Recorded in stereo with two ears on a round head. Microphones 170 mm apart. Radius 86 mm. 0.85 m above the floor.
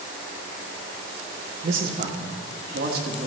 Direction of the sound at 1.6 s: 40° right (ahead or behind).